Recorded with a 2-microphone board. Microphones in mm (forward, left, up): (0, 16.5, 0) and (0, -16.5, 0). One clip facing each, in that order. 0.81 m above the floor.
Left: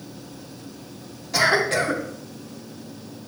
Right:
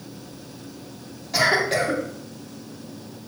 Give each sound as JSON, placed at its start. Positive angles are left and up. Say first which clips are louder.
{"t": 1.3, "sound": "a cough", "louder": "left 1 dB", "side_deg": 0, "distance_m": 1.9}